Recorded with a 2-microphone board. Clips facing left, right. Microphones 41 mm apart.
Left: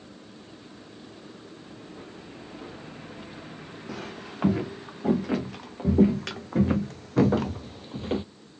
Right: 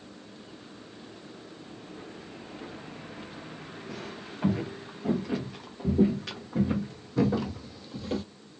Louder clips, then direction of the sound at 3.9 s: Left 4 dB; 80° left.